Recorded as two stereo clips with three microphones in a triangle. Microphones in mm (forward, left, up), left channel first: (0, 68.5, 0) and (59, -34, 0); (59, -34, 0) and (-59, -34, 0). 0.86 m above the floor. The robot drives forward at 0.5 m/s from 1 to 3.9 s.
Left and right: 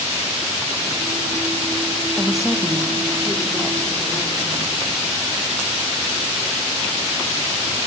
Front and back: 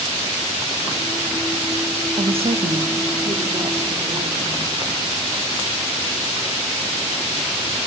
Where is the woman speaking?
145° right, 0.8 m; by 4.6 s 165° right, 1.6 m.